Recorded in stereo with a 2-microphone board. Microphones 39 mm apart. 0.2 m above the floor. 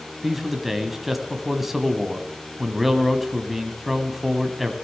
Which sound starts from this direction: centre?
A man speaking, at 0.2 s.